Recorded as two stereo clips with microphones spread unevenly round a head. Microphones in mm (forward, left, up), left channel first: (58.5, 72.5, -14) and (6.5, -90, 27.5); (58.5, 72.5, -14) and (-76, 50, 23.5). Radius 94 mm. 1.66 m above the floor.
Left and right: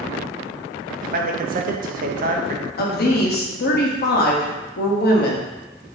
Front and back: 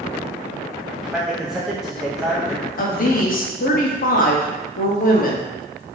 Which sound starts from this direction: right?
A man speaking, at 1.0 s.